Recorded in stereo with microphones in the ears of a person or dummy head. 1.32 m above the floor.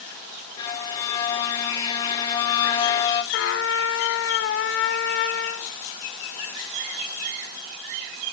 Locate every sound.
0.6 s a violin: 25° left (ahead or behind), 0.7 m
3.3 s a trumpet: 55° left (ahead or behind), 0.6 m